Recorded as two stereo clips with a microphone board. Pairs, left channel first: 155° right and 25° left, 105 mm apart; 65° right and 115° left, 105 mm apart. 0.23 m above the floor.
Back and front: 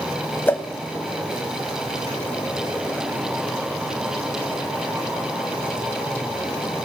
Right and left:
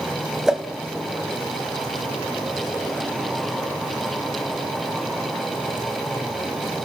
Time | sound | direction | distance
0.5 | a whoosh | straight behind | 0.7 m